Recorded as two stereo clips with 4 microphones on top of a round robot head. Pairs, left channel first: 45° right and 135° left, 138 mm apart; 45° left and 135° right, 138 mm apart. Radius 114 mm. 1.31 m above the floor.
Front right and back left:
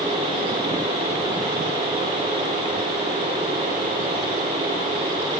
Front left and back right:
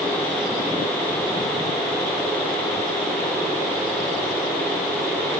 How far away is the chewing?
I don't hear chewing.